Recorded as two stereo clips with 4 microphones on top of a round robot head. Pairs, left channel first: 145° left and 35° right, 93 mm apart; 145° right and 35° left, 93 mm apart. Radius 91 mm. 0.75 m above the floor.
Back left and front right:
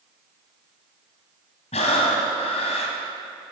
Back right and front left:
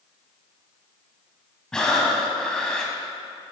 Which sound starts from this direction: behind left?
Breathing, at 1.7 s.